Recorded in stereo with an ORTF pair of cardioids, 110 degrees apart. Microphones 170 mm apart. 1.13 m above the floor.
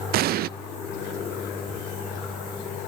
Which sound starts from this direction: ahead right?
An explosion, at 0.1 s.